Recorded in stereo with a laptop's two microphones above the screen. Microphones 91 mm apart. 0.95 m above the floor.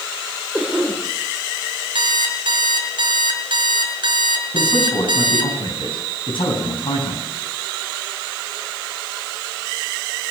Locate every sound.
0.5 s a cough: 15° right (ahead or behind), 3.5 m
1.9 s an alarm clock: 65° right (ahead or behind), 2.5 m
4.5 s a man speaking: 70° left (ahead or behind), 9 m